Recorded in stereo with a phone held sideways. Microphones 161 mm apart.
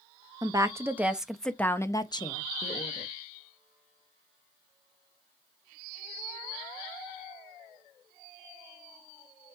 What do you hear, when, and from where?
0.4 s a woman speaking: 25° right (ahead or behind), 1.2 m; by 3.1 s 50° left (ahead or behind), 1.3 m